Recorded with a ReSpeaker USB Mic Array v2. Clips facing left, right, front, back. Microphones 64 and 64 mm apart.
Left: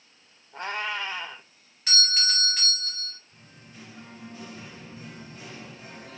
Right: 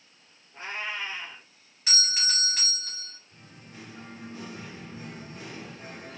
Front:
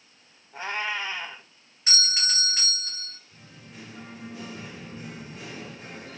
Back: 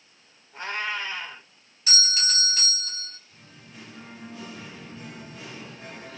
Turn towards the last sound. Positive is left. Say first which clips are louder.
# right 2 dB, front 1 dB
turn(degrees=-65)